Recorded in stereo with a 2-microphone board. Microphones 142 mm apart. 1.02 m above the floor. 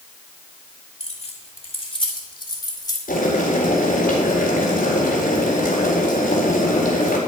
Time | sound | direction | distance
1.0 | keys jangling | 50° left (ahead or behind) | 2 m
3.1 | boiling | 80° left | 4 m